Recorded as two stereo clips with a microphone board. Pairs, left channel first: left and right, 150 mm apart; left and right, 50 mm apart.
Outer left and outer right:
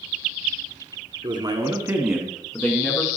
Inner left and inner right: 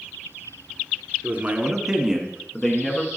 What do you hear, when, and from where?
1.2 s a man speaking: 35° right (ahead or behind), 1.3 m; by 3.1 s 25° left (ahead or behind), 1.5 m